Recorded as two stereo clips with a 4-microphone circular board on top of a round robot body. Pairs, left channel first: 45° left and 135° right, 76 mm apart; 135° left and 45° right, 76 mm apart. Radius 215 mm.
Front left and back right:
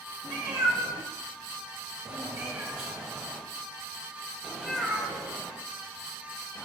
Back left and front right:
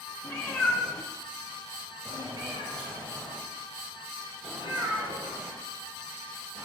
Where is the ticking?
No ticking in this recording.